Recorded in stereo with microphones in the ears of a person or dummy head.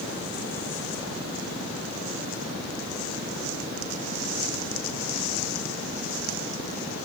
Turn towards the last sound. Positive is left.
No sound to turn to.